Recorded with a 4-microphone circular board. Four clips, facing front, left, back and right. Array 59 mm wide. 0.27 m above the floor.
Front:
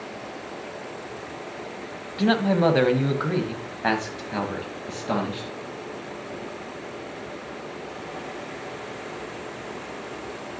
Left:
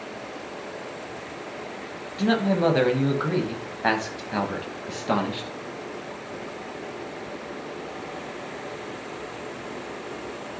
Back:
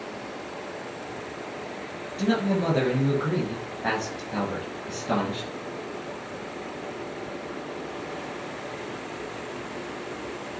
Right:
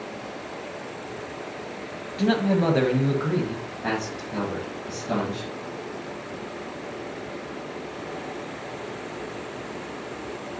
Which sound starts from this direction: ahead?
A man speaking, at 2.2 s.